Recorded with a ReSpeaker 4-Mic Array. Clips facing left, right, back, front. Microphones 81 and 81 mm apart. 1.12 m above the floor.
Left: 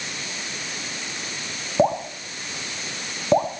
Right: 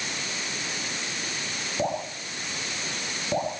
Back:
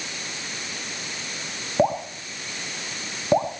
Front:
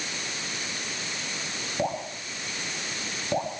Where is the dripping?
130° left, 3 m.